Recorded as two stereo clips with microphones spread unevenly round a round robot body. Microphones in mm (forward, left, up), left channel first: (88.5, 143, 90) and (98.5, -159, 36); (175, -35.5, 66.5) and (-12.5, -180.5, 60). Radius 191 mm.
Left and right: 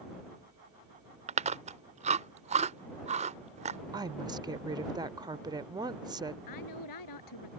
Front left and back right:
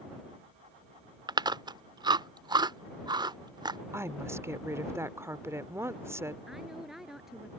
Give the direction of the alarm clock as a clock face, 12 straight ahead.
I don't hear an alarm clock.